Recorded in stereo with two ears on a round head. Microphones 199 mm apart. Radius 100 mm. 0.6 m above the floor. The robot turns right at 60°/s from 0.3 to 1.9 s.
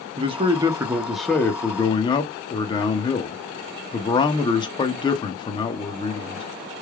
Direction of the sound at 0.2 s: 55° right.